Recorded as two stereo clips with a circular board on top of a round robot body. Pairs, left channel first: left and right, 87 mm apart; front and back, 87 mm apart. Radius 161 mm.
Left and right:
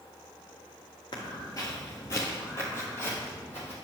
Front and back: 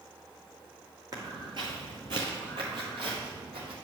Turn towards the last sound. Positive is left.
turn(degrees=155)